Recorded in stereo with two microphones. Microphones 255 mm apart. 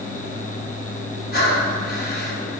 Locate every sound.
1.3 s breathing: 40° left (ahead or behind), 1.7 m